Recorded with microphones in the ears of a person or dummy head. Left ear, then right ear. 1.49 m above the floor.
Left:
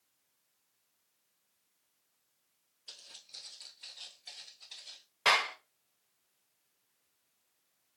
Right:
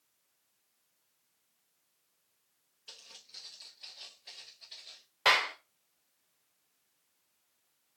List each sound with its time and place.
2.9 s footsteps: 15° right (ahead or behind), 1.9 m; by 5.0 s 5° left (ahead or behind), 1.4 m
5.2 s a clap: 10° right (ahead or behind), 0.7 m